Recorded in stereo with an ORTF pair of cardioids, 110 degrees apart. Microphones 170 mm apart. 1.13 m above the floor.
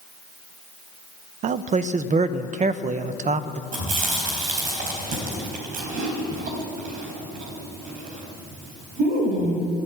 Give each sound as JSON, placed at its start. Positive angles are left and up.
{"t": 1.4, "sound": "a man speaking", "azimuth_deg": -50, "distance_m": 0.6}
{"t": 3.7, "sound": "chewing", "azimuth_deg": -55, "distance_m": 4.0}